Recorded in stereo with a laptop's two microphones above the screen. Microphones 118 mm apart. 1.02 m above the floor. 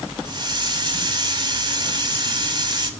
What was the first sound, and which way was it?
A hiss, 40° right (ahead or behind).